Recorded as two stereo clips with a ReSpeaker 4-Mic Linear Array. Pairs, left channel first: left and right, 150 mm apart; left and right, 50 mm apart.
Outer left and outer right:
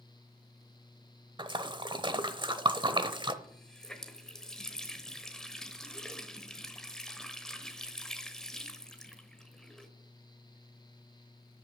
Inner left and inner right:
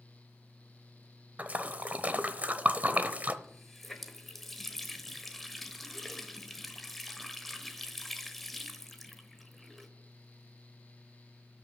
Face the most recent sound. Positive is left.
turn(degrees=5)  # may be behind; listen again after turning